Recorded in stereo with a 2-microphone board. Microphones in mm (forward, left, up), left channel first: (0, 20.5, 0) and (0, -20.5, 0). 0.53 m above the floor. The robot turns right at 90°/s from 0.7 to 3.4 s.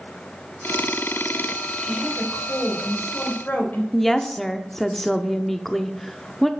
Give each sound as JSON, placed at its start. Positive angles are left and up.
{"t": 1.8, "sound": "a woman speaking", "azimuth_deg": -25, "distance_m": 2.5}
{"t": 3.9, "sound": "a woman speaking", "side_deg": 5, "distance_m": 0.8}